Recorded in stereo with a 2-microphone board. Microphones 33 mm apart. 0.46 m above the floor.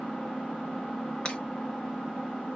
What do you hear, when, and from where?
0.0 s an engine running: 30° left (ahead or behind), 2 m
1.2 s breaking glass: 35° left (ahead or behind), 1.1 m